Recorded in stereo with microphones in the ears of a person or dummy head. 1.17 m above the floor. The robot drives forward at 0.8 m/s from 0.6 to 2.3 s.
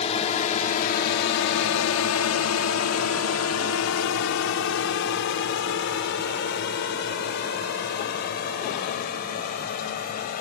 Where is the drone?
40° left (ahead or behind); by 10.4 s 50° left (ahead or behind).